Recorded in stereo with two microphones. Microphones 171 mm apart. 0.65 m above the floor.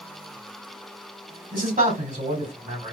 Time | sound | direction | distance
1.5 | a man speaking | 55° right (ahead or behind) | 2.5 m